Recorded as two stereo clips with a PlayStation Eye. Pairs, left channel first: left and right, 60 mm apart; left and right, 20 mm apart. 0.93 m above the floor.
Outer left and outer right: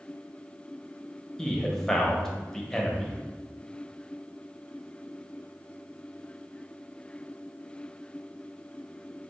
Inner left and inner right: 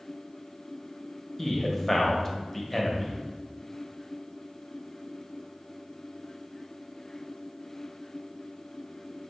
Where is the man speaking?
10° left (ahead or behind), 0.7 m.